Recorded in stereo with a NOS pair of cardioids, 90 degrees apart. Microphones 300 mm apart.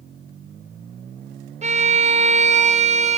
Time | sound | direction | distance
1.6 | a violin | 25° right | 1.1 m